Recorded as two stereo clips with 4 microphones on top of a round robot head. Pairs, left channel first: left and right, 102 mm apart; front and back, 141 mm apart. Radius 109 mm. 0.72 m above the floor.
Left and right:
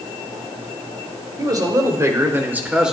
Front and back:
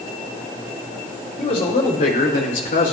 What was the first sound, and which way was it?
A man speaking, 45° right.